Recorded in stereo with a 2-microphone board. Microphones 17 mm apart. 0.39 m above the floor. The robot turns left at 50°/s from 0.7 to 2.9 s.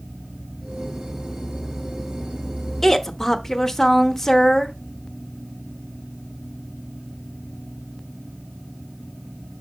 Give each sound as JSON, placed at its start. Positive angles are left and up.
{"t": 2.8, "sound": "a woman speaking", "side_deg": 20, "distance_m": 0.9}